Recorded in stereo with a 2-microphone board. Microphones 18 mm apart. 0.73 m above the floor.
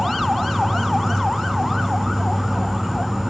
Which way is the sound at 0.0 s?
15° right (ahead or behind).